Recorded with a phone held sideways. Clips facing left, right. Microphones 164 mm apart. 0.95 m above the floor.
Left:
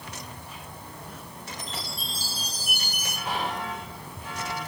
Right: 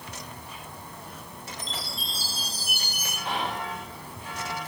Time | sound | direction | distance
1.6 | a chime | 15° left (ahead or behind) | 5.5 m
3.2 | whispering | centre (ahead or behind) | 3 m